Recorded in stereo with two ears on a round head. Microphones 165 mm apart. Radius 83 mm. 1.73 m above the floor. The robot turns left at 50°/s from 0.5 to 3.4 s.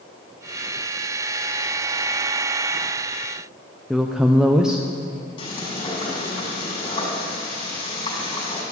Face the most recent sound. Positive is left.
turn(degrees=30)  # may be behind; listen again after turning